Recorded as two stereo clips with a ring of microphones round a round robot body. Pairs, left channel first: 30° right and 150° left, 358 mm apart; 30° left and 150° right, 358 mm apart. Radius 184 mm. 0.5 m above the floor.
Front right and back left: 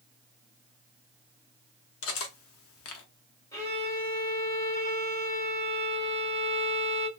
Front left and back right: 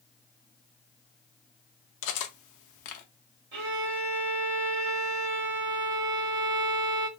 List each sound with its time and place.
2.0 s cutlery clinking: 10° left, 0.6 m
3.5 s a violin: 105° right, 1.7 m